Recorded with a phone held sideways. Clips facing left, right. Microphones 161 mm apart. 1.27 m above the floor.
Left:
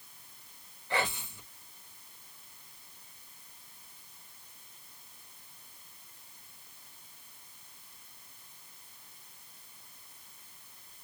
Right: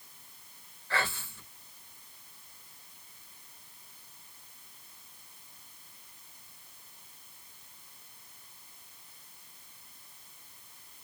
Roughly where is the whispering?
Centre.